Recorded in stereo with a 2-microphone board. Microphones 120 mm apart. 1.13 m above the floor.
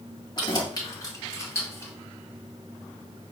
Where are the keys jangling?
35° left (ahead or behind), 1.9 m; by 1.9 s 20° left (ahead or behind), 3 m.